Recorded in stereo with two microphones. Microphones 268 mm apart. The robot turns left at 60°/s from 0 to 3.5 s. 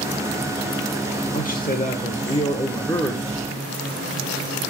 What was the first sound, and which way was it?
A man speaking, 110° left.